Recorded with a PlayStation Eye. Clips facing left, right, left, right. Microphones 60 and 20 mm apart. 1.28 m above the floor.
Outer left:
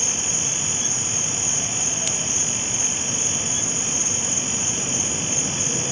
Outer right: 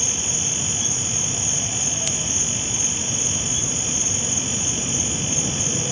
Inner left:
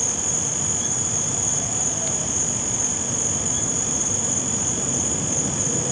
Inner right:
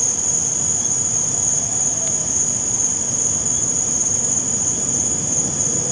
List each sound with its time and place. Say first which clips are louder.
0.0 s an insect: even, inner right 3 dB; 25° right (ahead or behind)